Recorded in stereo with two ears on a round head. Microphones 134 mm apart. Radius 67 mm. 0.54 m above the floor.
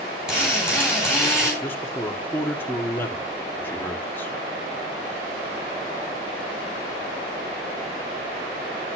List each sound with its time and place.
0.3 s a drill: 5° right (ahead or behind), 6.5 m
1.6 s a man speaking: 15° left (ahead or behind), 1.3 m